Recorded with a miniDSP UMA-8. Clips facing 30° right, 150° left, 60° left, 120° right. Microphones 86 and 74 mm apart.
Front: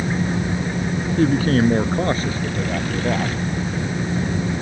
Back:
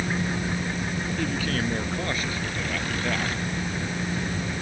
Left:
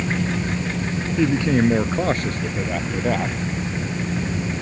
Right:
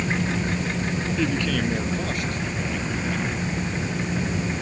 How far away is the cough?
No cough in this recording.